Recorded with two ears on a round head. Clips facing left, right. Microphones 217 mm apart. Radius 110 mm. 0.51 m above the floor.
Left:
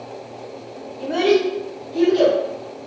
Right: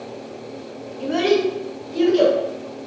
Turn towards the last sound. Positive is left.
turn(degrees=-60)  # may be behind; listen again after turning